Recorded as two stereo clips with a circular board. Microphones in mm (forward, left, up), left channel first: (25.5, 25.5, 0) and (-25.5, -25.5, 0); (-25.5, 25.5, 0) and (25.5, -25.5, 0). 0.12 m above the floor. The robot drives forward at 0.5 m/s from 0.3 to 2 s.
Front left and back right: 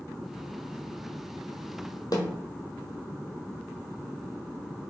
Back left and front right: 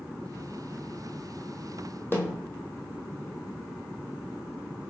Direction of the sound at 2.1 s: 80° left.